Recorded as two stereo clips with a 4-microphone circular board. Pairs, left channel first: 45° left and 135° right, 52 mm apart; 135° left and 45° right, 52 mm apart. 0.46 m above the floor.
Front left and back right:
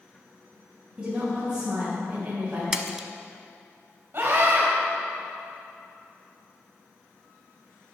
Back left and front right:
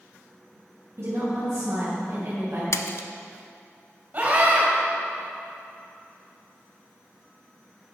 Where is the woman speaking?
80° right, 3 m; by 2.6 s 95° right, 3 m.